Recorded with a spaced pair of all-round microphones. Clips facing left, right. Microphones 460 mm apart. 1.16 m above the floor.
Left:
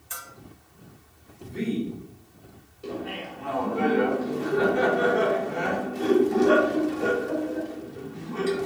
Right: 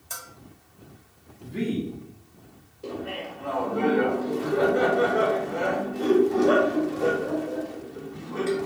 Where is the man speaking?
85° right, 2 m.